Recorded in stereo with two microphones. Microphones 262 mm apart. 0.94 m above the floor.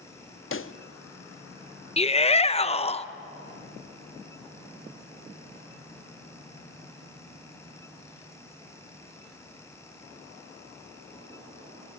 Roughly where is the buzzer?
No buzzer in this recording.